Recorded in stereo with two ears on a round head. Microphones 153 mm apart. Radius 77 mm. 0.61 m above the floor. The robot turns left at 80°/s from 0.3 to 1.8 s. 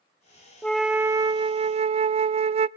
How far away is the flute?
About 0.6 m.